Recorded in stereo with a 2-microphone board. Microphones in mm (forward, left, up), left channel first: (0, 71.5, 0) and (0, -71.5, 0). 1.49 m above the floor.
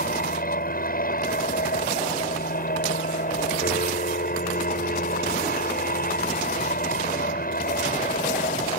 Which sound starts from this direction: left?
An aircraft, at 0.0 s.